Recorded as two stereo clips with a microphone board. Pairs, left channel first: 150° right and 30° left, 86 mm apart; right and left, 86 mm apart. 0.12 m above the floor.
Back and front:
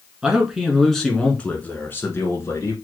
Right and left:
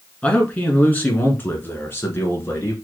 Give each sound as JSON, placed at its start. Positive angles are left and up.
{"t": 0.2, "sound": "a man speaking", "azimuth_deg": -35, "distance_m": 1.4}